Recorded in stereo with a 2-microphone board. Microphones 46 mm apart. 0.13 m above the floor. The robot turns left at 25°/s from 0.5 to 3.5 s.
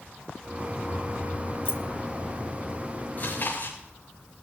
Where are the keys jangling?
60° left (ahead or behind), 2 m.